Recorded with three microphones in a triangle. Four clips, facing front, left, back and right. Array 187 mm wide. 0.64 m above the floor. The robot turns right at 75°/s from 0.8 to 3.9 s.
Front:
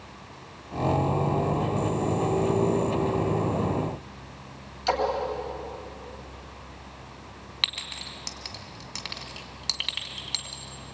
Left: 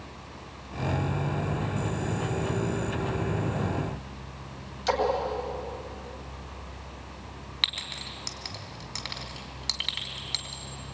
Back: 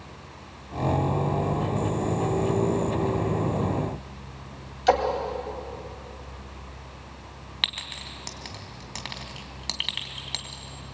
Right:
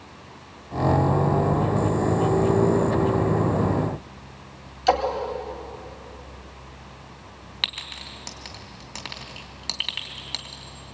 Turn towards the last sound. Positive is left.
turn(degrees=-145)